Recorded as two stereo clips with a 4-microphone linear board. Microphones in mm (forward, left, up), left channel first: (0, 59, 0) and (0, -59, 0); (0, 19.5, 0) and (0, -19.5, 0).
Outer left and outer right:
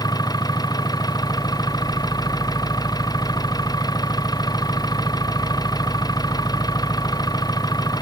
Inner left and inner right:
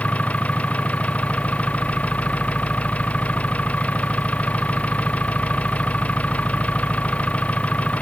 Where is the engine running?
35° left (ahead or behind).